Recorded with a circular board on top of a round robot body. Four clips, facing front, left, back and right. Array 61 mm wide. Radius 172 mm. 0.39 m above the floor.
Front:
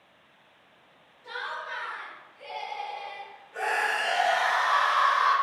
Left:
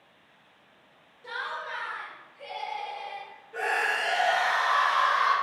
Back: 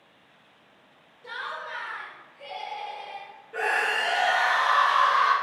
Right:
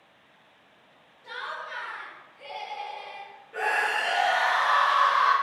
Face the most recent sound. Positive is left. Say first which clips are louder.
# right 1 dB, back 2 dB
turn(degrees=-155)